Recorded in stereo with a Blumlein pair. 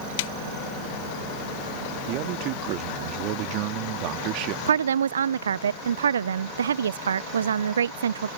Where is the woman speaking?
65° right.